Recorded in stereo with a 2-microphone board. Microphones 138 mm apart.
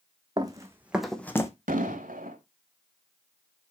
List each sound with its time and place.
0.4 s running footsteps: 30° right (ahead or behind), 1.5 m; by 1.5 s 25° left (ahead or behind), 1.2 m
1.7 s an explosion: 80° right, 1.3 m